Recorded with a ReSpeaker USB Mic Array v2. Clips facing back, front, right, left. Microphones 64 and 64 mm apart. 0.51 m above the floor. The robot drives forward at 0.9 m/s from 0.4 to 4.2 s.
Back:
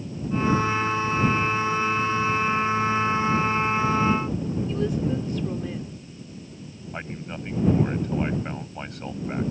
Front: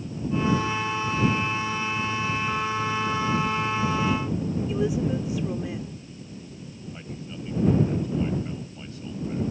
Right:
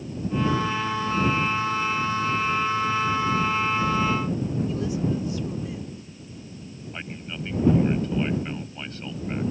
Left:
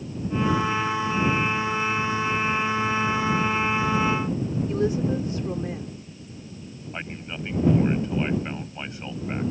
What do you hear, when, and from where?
4.7 s a woman speaking: 75° left
6.9 s a man speaking: 160° left